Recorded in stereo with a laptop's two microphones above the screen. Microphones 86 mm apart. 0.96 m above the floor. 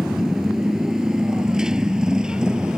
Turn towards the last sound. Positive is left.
turn(degrees=-10)  # may be behind; listen again after turning